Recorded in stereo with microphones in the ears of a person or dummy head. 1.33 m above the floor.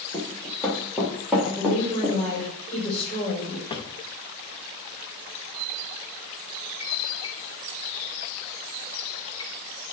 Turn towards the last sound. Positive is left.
turn(degrees=25)  # may be behind; listen again after turning